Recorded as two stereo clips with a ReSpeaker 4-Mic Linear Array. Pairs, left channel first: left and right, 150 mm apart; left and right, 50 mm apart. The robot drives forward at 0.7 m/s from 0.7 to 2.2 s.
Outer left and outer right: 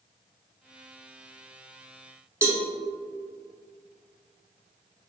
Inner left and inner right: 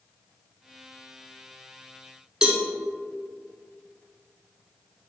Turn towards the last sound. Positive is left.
turn(degrees=-15)  # may be behind; listen again after turning